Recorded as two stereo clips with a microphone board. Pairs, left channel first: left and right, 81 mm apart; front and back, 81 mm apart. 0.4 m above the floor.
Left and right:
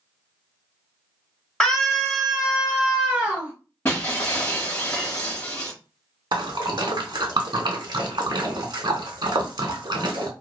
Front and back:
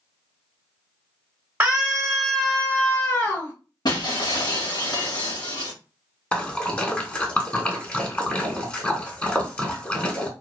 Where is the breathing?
I don't hear breathing.